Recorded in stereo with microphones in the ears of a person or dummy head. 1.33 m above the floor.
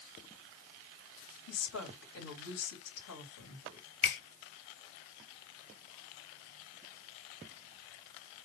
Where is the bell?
No bell in this recording.